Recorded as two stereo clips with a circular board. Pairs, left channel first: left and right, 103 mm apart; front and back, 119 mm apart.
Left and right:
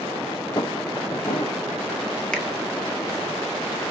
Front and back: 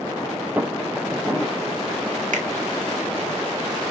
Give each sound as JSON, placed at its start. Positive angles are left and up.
{"t": 0.6, "sound": "footsteps", "azimuth_deg": 110, "distance_m": 1.4}
{"t": 2.3, "sound": "a finger snap", "azimuth_deg": 175, "distance_m": 1.4}